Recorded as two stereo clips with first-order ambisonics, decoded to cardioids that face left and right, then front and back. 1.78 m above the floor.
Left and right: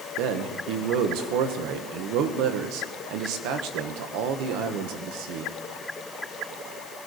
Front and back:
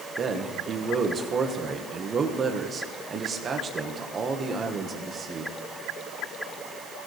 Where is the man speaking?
110° right, 1.4 m.